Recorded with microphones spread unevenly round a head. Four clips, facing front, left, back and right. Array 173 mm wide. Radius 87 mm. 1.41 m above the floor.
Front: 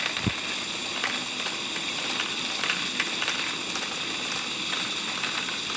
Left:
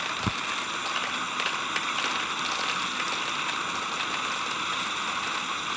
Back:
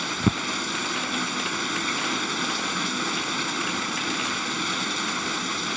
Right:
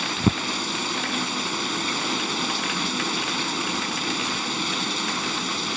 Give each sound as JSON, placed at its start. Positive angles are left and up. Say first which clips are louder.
{"t": 0.0, "sound": "running water", "louder": "right 7 dB, back 6 dB", "azimuth_deg": -130}